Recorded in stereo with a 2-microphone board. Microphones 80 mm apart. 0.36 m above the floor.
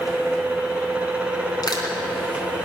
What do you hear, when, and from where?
1.6 s crushing: 60° left (ahead or behind), 3.5 m